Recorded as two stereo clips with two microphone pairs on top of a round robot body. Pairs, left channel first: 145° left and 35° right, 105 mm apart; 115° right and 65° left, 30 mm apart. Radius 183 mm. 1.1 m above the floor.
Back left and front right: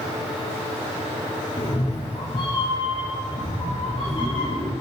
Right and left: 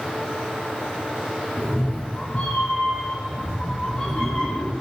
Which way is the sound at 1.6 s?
170° right.